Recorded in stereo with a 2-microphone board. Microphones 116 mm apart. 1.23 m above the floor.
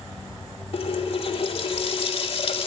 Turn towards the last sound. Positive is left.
turn(degrees=55)  # may be behind; listen again after turning